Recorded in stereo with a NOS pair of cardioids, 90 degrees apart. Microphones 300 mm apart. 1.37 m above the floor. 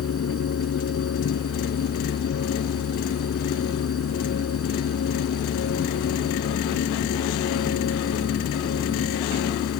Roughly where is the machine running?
Ahead left.